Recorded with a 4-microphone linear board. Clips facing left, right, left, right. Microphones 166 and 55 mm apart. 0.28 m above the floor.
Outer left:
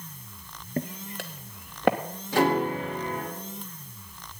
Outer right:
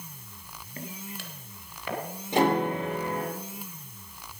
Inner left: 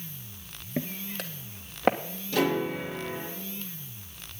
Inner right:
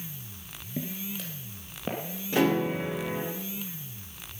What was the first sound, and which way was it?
Footsteps, 50° left (ahead or behind).